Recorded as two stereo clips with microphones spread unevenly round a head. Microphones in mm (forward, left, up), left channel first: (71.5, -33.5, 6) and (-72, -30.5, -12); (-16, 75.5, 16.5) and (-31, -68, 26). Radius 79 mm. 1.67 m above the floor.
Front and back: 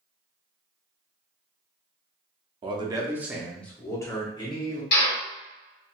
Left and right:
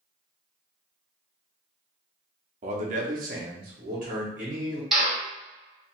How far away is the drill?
About 1.6 m.